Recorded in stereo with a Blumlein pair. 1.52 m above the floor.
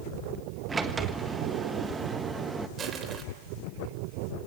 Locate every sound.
0.7 s a sliding door: 15° right, 1.4 m
2.8 s crushing: 25° right, 3 m